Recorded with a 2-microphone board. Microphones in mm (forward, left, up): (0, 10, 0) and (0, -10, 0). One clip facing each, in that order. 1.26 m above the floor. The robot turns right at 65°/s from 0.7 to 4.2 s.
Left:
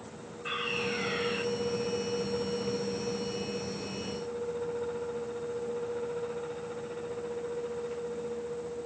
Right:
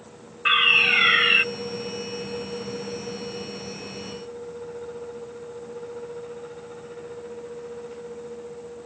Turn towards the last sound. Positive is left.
turn(degrees=115)